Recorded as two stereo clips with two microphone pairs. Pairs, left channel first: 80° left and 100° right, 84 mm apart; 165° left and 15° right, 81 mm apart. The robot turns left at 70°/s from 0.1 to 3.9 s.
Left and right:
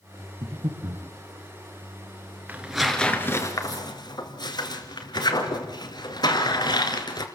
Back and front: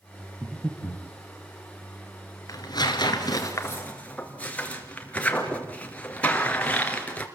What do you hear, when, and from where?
0.4 s breathing: 90° right, 4 m; by 1.1 s 135° right, 4 m
2.5 s tearing paper: 165° right, 2.5 m; by 7.3 s 95° left, 2.5 m